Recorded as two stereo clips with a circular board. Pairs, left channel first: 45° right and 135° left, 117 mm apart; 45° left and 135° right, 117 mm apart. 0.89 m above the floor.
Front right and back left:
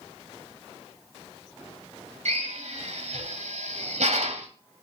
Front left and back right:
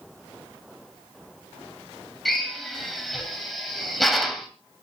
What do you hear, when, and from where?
2.2 s a drill: 135° left, 3 m